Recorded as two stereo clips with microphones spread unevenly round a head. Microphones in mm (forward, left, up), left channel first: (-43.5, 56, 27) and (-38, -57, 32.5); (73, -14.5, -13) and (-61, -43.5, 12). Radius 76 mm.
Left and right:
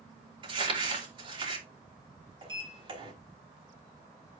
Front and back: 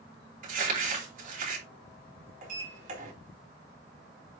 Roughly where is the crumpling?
Behind right.